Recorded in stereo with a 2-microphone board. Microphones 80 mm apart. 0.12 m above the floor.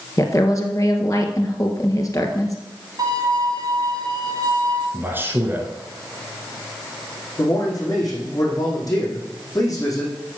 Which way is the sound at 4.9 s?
25° right (ahead or behind).